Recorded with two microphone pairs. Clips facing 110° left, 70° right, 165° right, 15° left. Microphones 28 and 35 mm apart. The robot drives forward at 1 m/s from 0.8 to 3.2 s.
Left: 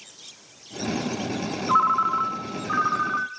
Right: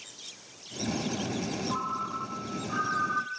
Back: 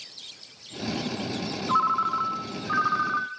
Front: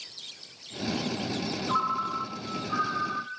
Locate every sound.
1.7 s a ringtone: 120° left, 0.9 m; by 3.3 s 160° left, 2 m